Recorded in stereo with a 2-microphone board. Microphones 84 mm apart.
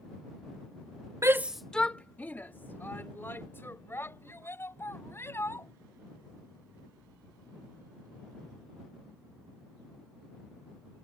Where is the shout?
35° right (ahead or behind); by 5.7 s 30° left (ahead or behind).